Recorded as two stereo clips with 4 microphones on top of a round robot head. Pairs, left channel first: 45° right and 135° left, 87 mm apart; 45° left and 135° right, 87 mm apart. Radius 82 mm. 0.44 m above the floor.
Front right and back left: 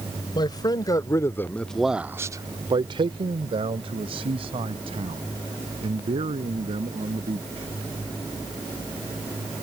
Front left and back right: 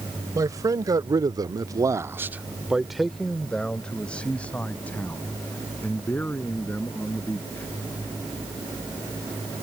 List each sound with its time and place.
0.3 s a man speaking: 85° right; by 7.7 s 115° left